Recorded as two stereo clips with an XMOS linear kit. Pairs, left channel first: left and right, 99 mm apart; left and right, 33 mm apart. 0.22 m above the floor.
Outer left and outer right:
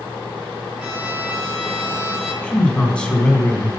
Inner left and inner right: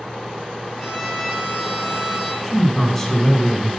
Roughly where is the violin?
Centre.